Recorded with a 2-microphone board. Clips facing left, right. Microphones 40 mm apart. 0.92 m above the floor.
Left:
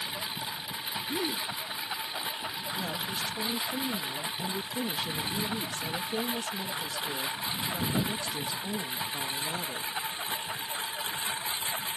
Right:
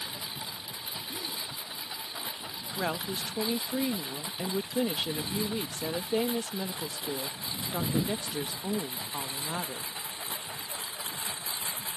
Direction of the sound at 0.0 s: 30° left (ahead or behind).